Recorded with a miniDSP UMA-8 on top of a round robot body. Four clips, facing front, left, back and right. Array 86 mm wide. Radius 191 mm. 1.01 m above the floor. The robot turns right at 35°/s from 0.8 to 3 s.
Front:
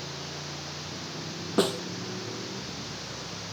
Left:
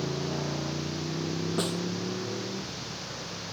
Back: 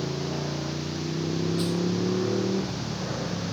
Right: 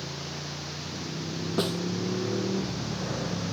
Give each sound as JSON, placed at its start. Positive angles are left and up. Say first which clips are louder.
{"t": 0.0, "sound": "a motorcycle", "louder": "left 7 dB, back 10 dB", "azimuth_deg": 140}
{"t": 1.6, "sound": "a snare drum", "louder": "right 5 dB, front 2 dB", "azimuth_deg": -10}